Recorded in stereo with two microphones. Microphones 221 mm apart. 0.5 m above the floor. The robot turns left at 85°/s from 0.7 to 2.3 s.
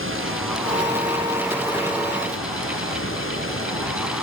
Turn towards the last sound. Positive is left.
turn(degrees=110)